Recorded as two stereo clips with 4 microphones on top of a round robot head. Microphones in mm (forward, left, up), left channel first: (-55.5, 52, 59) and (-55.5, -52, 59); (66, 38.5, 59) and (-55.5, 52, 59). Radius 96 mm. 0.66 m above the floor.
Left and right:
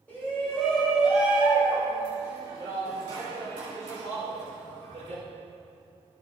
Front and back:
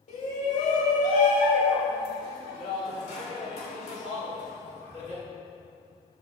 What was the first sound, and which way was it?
A shout, 15° left.